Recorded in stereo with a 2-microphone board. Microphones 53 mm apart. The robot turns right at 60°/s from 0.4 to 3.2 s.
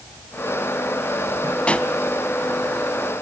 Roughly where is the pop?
Left.